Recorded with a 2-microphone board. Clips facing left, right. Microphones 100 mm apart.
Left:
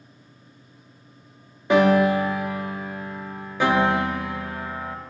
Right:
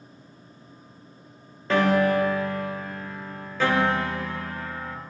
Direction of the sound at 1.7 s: 15° left (ahead or behind).